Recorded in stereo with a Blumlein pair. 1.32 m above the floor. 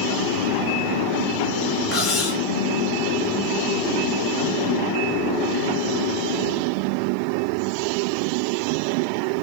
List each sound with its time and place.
1.9 s cutlery clinking: 30° left, 1.4 m